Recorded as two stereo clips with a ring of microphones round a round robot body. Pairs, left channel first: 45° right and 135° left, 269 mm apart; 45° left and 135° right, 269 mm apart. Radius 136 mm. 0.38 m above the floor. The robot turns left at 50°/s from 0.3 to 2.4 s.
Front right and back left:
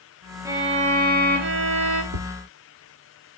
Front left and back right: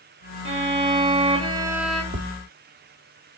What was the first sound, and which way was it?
A violin, 150° right.